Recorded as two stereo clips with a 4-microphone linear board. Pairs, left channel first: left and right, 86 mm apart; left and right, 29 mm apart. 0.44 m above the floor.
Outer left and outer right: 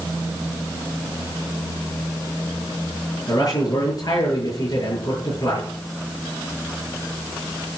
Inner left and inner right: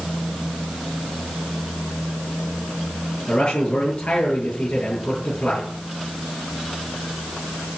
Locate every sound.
3.3 s a man speaking: 45° left (ahead or behind), 7 m